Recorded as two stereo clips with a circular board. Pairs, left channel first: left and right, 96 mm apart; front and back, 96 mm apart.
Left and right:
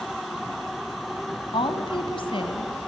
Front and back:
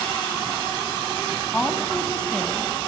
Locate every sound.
1.5 s a woman speaking: 80° left, 1.7 m